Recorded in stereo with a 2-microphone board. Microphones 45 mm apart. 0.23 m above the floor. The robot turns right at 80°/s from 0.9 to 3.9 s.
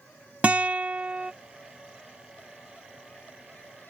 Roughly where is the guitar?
Right.